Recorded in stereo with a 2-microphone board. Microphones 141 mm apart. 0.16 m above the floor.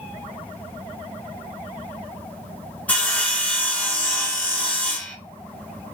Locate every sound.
2.9 s sawing: 10° left (ahead or behind), 1.1 m